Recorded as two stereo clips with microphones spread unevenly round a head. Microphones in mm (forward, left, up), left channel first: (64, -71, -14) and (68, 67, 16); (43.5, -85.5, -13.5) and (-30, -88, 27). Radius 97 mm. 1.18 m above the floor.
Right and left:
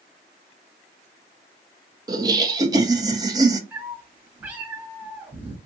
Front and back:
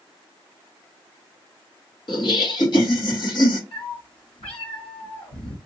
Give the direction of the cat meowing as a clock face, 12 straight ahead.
12 o'clock.